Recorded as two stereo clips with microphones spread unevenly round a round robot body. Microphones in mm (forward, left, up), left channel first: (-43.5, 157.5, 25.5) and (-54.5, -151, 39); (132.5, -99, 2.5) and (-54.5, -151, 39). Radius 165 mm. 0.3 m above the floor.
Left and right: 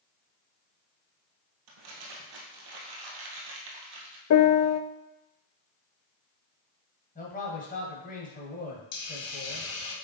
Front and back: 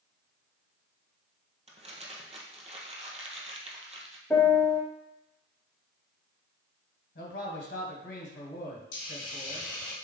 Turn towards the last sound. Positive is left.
turn(degrees=55)